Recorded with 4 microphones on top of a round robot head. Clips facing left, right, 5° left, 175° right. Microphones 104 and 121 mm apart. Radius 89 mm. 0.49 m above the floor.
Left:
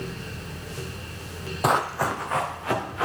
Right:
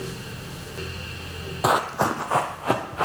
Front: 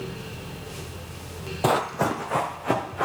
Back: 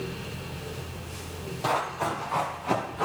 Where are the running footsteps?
5° right, 0.6 m; by 3.0 s 40° right, 2.5 m.